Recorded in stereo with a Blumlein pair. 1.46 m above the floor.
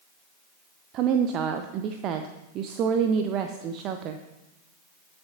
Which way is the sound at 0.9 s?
35° right.